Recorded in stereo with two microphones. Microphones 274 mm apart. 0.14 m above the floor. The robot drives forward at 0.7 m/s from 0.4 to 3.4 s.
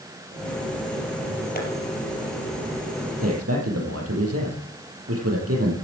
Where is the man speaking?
60° right (ahead or behind), 5 m.